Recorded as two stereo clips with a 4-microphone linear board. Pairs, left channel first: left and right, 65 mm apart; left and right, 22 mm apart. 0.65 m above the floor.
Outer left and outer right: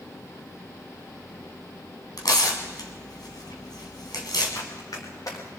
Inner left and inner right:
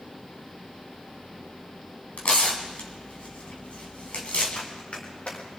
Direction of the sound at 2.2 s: 80° left.